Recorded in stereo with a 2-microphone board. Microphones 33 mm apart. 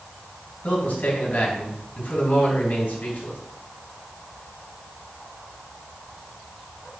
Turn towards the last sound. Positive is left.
turn(degrees=60)  # may be behind; listen again after turning